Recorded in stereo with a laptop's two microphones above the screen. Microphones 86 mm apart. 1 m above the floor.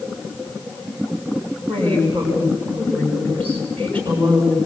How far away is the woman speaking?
About 7 m.